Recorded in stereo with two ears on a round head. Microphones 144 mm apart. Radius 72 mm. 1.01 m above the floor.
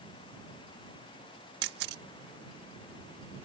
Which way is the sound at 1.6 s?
70° right (ahead or behind).